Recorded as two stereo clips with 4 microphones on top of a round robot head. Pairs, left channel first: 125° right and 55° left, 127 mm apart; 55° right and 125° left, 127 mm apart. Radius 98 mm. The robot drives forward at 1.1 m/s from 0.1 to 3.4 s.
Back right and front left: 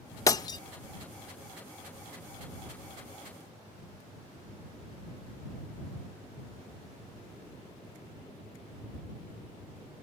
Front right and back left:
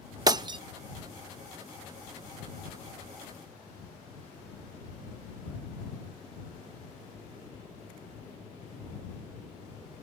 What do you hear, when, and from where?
0.3 s breaking glass: 175° left; by 0.6 s straight behind